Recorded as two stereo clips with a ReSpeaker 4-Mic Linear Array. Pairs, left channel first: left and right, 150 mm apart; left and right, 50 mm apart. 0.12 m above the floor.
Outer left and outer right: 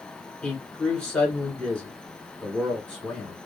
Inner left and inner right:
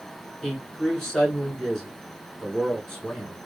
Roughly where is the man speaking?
Centre.